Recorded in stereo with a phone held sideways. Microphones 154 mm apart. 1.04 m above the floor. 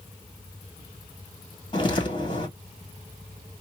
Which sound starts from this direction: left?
Footsteps, at 1.7 s.